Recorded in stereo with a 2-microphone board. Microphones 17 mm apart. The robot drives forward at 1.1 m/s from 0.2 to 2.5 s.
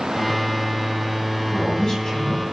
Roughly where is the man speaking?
Left.